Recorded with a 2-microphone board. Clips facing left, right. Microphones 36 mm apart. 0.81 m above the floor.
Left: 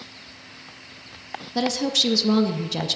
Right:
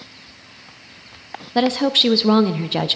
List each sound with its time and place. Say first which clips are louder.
1.6 s a woman speaking: right 6 dB; 40° right (ahead or behind), 0.6 m